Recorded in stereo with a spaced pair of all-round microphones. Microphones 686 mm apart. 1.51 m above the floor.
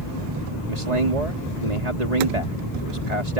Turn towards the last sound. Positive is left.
turn(degrees=-70)  # may be behind; listen again after turning